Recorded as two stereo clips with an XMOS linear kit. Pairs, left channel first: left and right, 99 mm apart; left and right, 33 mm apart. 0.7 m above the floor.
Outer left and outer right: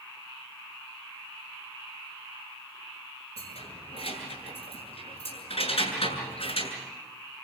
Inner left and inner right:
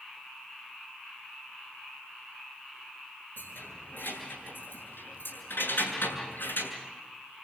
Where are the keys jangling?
80° left, 9.5 m; by 6.7 s 85° left, 6 m.